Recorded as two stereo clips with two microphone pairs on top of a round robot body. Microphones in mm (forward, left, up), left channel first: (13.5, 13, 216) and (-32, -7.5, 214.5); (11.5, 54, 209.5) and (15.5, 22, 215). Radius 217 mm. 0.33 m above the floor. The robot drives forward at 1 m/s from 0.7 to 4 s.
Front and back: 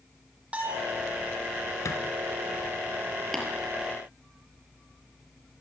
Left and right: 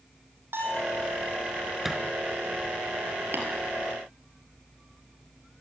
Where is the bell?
90° right, 7.5 m; by 1.0 s 95° right, 7.5 m.